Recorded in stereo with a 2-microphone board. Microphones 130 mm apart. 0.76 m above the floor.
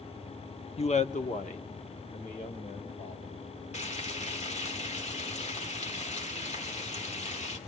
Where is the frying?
60° left (ahead or behind), 1.8 m.